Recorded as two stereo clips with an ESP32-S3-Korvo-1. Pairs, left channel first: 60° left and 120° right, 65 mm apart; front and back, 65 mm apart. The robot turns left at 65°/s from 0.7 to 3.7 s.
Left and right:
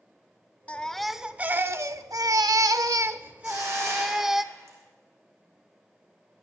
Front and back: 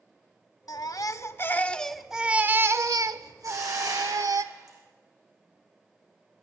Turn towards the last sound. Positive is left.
turn(degrees=-165)